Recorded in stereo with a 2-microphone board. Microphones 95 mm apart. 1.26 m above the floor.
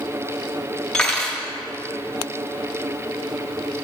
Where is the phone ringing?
No phone ringing in this recording.